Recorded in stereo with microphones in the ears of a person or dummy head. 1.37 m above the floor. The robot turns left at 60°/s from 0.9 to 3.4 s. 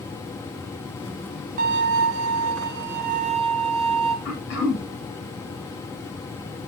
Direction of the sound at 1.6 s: 45° right.